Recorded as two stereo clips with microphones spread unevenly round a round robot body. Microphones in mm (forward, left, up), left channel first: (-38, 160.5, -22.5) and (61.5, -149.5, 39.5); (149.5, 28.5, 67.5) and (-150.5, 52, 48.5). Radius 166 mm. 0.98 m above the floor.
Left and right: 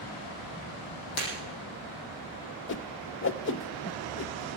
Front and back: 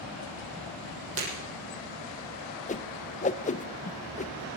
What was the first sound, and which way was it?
Breaking glass, 130° left.